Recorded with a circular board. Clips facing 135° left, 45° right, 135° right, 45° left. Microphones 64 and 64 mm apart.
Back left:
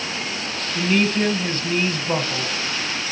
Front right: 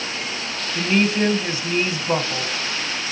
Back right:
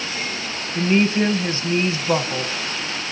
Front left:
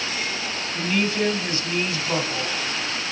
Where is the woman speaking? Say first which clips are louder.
Even, back right 6 dB; 110° right, 1.2 m.